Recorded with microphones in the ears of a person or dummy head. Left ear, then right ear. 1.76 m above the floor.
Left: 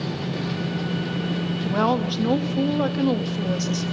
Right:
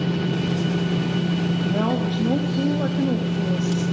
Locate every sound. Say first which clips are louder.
1.6 s a woman speaking: left 4 dB; 50° left (ahead or behind), 2.5 m